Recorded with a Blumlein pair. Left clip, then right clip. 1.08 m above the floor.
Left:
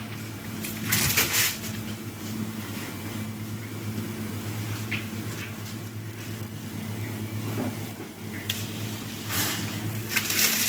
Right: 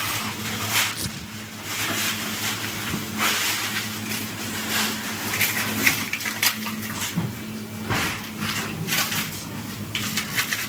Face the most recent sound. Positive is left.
turn(degrees=-5)